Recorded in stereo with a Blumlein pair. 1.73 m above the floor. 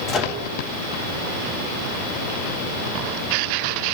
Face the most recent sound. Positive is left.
turn(degrees=20)